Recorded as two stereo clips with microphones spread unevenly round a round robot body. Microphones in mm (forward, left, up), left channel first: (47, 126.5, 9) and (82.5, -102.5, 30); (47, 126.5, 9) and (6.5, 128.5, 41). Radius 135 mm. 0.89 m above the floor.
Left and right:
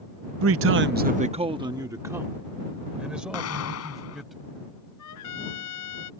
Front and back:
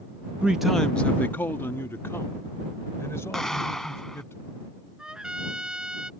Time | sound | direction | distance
0.4 | a man speaking | 90° right | ?
3.3 | an explosion | 80° left | ?
5.0 | a trumpet | 110° left | ?